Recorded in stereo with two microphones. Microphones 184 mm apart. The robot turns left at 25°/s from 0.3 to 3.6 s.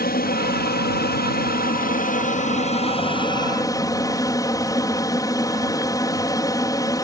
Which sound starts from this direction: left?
An aircraft, at 0.0 s.